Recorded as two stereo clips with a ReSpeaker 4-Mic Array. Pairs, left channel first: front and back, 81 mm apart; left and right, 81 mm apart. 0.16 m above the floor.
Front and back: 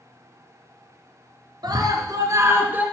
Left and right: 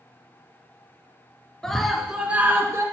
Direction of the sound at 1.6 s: 170° left.